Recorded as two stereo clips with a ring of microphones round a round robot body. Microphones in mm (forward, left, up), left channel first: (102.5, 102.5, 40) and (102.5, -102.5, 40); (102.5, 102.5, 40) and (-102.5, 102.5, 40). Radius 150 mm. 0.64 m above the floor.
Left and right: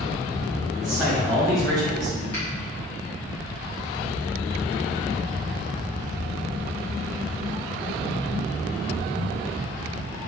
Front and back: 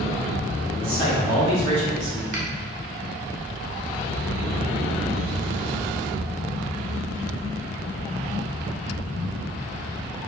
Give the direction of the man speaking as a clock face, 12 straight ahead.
5 o'clock.